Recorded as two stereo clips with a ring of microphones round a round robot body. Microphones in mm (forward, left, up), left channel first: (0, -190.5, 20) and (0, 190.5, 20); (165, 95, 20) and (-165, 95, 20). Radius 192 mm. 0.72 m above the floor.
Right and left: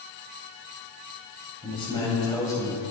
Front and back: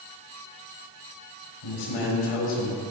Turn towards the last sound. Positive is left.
turn(degrees=-5)